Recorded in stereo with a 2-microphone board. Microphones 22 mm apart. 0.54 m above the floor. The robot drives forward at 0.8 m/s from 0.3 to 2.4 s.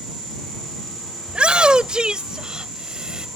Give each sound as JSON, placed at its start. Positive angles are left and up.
{"t": 1.3, "sound": "a shout", "side_deg": -60}